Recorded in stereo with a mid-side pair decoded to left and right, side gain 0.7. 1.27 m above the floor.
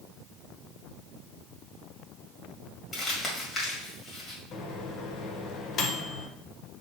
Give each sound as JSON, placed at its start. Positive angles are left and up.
{"t": 2.9, "sound": "crumpling", "azimuth_deg": 30, "distance_m": 1.9}
{"t": 4.5, "sound": "a microwave", "azimuth_deg": 50, "distance_m": 0.8}